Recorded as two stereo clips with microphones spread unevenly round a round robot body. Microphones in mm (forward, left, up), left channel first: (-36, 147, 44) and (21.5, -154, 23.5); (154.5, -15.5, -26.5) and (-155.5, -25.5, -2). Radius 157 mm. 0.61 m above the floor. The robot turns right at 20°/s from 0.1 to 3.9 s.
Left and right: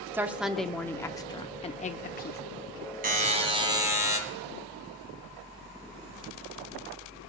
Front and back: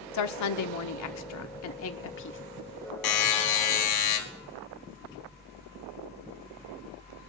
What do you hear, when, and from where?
0.1 s a woman speaking: straight ahead, 1.0 m; by 2.4 s 45° left, 1.0 m
3.0 s a buzzer: 15° right, 2 m; by 4.2 s straight ahead, 2 m